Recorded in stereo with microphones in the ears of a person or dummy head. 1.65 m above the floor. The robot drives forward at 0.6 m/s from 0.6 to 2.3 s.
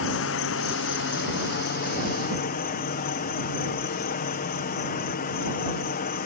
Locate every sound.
0.0 s an insect: 65° left (ahead or behind); by 6.3 s 45° left (ahead or behind)